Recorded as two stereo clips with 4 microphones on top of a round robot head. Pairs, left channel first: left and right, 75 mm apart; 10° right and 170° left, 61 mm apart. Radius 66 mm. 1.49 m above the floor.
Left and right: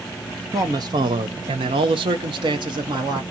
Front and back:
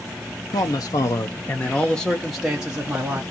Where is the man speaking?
35° right, 0.9 m; by 3.2 s 115° right, 1.4 m.